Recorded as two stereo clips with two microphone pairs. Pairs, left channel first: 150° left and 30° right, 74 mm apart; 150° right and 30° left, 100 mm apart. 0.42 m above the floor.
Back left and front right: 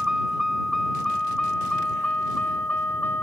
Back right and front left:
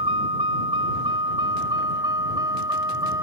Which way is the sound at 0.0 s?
50° left.